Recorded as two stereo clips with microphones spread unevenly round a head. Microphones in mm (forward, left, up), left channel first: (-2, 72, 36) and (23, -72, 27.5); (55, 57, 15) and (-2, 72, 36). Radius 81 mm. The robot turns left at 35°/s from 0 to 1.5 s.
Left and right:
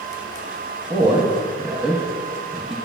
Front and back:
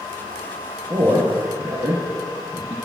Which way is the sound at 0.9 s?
145° right.